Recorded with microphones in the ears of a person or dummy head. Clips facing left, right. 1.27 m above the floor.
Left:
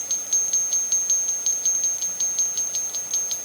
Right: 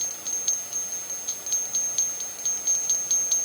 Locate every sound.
Only background noise.